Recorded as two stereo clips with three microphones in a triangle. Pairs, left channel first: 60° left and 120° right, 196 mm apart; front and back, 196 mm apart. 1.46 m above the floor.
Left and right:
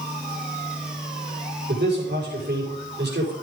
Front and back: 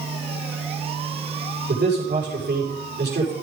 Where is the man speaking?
150° right, 5.5 m.